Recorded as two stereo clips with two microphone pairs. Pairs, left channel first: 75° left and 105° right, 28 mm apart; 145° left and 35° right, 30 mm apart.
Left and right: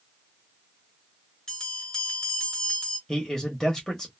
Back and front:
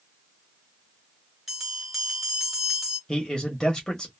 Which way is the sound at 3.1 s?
125° left.